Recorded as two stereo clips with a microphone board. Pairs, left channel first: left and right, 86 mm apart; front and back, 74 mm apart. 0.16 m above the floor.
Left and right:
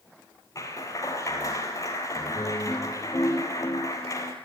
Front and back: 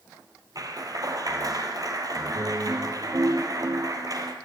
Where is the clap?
145° left, 2.5 m.